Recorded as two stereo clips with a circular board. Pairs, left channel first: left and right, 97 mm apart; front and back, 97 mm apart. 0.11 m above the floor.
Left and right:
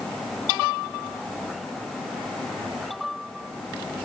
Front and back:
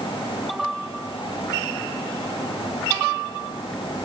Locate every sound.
Only background noise.